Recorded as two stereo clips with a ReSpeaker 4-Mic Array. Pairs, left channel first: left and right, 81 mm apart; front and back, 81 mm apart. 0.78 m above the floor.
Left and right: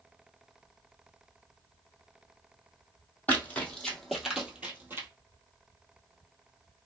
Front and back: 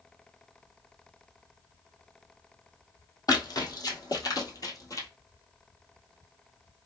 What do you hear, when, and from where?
3.3 s running footsteps: 25° left, 1.4 m; by 5.1 s 35° right, 1.2 m